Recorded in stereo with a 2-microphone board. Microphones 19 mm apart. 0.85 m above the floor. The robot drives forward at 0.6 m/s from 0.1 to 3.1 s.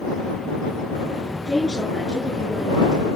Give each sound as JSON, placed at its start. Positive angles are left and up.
{"t": 1.5, "sound": "a woman speaking", "side_deg": 50, "distance_m": 7.5}